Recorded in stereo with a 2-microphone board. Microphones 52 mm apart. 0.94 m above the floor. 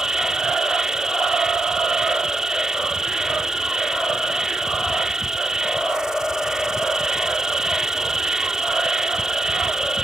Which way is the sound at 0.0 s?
10° right (ahead or behind).